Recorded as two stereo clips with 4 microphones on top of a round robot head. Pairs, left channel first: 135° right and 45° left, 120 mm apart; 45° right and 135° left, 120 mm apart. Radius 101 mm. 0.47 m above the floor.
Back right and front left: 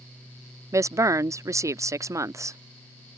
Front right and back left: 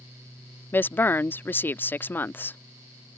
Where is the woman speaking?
10° left.